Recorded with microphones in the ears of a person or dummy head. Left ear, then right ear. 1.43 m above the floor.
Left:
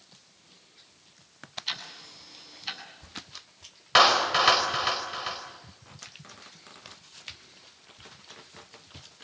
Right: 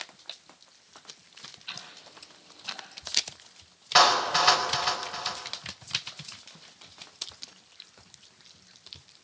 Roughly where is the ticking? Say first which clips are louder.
Left 7 dB; left.